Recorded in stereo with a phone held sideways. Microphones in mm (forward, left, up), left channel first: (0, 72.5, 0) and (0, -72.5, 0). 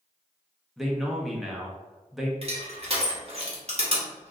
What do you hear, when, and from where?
0.8 s a man speaking: centre (ahead or behind), 0.7 m
2.4 s crushing: 50° right (ahead or behind), 1.0 m